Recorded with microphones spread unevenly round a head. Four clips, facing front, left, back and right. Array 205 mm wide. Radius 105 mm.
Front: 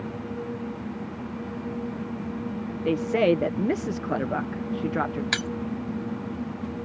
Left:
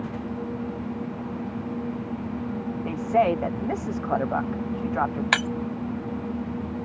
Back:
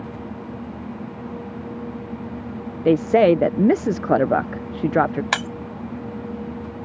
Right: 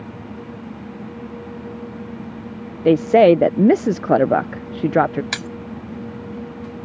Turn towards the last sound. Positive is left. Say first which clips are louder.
# left 5 dB, back 5 dB
turn(degrees=165)